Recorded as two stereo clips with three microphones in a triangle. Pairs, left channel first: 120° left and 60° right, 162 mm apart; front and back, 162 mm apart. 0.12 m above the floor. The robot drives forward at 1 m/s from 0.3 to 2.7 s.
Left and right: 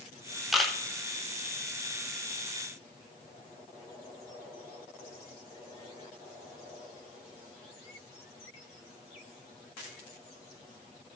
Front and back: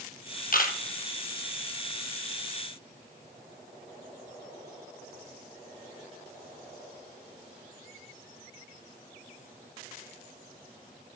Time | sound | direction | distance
0.5 | a camera shutter | 30° left | 1.3 m